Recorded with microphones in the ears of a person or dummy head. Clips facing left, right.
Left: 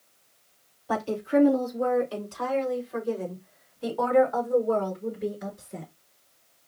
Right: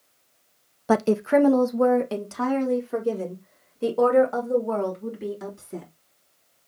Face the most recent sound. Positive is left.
turn(degrees=-65)  # may be behind; listen again after turning